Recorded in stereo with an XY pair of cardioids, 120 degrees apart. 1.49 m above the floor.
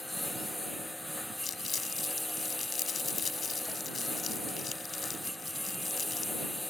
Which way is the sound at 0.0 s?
10° left.